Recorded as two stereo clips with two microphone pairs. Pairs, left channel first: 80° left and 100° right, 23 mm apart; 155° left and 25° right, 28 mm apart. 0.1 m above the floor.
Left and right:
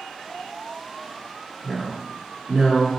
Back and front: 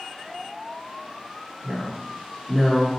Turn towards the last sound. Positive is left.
turn(degrees=-70)